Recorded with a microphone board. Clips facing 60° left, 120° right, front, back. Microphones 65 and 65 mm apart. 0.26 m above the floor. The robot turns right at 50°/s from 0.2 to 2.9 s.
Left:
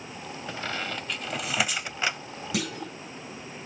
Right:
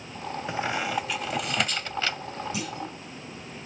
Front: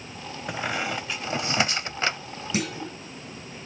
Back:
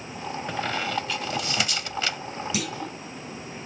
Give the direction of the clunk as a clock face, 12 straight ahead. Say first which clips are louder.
Left 1 dB, front 5 dB; 10 o'clock.